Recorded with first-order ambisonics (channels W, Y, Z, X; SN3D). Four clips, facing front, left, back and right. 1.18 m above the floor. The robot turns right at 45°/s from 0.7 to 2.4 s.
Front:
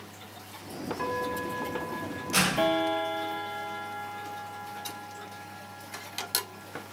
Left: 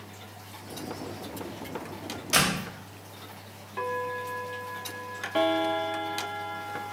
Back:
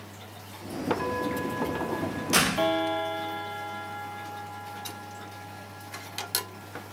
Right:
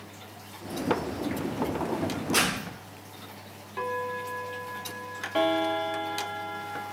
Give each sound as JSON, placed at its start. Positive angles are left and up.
{"t": 2.3, "sound": "a door slam", "azimuth_deg": 130, "distance_m": 3.5}